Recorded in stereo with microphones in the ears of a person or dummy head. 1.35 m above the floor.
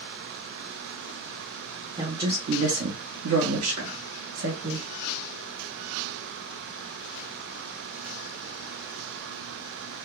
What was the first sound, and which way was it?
A woman speaking, 25° right (ahead or behind).